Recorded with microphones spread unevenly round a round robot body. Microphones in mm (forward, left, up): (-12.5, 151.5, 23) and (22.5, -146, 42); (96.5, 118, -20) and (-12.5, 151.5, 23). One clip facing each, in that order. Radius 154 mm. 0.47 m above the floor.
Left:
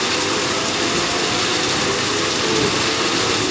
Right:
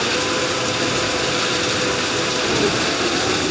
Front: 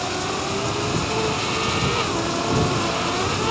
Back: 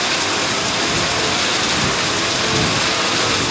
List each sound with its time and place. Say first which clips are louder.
0.0 s running water: even, back 3 dB; straight behind